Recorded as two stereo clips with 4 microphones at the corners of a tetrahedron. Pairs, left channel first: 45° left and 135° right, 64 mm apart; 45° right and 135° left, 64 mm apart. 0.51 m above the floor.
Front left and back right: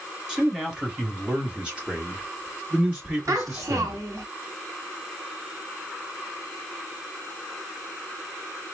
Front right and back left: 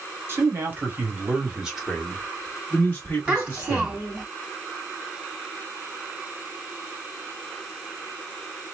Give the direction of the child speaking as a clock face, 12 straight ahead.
5 o'clock.